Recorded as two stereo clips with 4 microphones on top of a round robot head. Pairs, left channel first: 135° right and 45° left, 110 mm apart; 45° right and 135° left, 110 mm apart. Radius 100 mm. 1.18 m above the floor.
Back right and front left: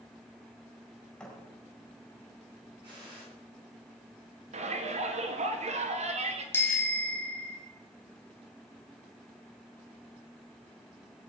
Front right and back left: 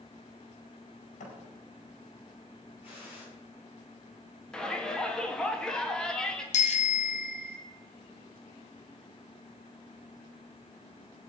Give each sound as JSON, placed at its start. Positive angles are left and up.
{"t": 1.2, "sound": "a thud", "azimuth_deg": -50, "distance_m": 5.0}
{"t": 2.8, "sound": "a gunshot", "azimuth_deg": -5, "distance_m": 9.0}
{"t": 4.5, "sound": "a shout", "azimuth_deg": 40, "distance_m": 3.0}
{"t": 6.5, "sound": "a bicycle bell", "azimuth_deg": -60, "distance_m": 2.5}